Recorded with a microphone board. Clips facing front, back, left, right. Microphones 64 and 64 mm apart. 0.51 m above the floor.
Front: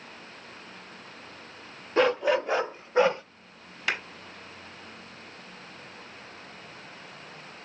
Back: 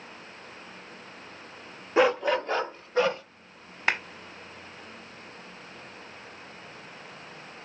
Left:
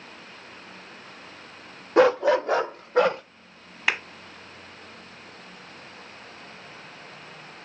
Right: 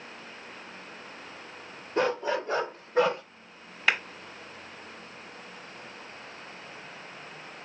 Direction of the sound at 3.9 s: 170° left.